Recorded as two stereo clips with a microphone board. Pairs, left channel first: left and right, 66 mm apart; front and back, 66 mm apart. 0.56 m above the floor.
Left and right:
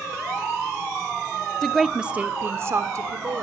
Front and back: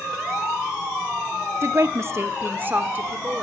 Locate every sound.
1.6 s a woman speaking: 165° left, 0.9 m; by 3.4 s 115° right, 1.7 m